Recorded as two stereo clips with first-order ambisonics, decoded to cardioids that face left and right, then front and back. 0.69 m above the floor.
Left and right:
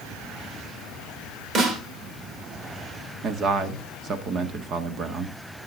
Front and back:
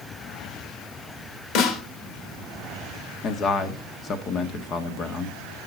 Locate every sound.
1.6 s a snare drum: 30° right, 1.9 m
3.2 s a man speaking: 45° right, 1.4 m